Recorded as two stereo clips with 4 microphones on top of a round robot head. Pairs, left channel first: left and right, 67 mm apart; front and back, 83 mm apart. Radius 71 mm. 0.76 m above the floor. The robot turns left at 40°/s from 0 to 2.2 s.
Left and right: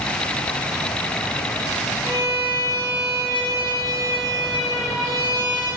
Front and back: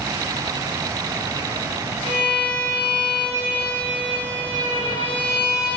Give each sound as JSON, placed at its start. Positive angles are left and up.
{"t": 2.0, "sound": "a violin", "azimuth_deg": 5, "distance_m": 1.0}